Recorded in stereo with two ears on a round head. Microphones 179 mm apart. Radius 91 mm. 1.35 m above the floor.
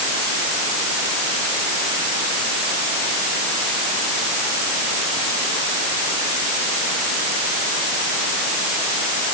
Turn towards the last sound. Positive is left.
No sound to turn to.